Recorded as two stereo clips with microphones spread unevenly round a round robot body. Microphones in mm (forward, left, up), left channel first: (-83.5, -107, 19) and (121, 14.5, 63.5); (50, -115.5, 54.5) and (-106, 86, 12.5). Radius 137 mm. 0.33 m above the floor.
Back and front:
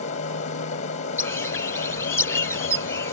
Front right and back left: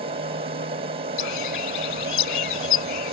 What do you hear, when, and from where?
0.0 s an aircraft: 175° left
1.2 s a bird: 70° right